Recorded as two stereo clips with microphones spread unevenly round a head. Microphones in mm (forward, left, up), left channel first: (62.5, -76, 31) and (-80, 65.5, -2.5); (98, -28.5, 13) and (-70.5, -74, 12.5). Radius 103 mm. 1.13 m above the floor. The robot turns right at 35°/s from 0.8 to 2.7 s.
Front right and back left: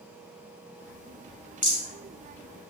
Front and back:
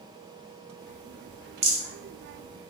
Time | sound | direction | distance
1.6 | a rattle | 115° right | 1.2 m